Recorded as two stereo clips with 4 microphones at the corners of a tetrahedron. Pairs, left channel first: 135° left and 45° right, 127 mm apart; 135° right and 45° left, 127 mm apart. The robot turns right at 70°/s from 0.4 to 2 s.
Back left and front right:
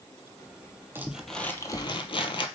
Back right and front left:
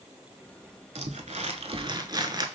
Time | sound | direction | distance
0.9 | crumpling | 25° left | 0.6 m